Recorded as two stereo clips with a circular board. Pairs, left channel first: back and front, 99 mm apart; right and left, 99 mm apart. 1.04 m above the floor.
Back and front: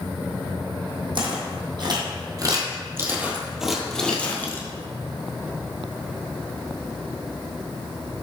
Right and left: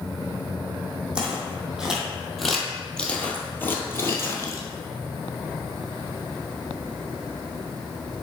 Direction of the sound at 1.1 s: 10° left.